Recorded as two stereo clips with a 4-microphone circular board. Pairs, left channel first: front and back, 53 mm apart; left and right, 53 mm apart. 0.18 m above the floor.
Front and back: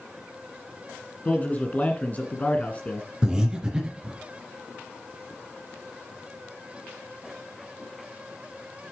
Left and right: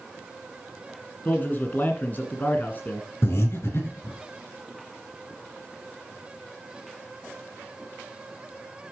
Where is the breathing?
110° left, 3 m.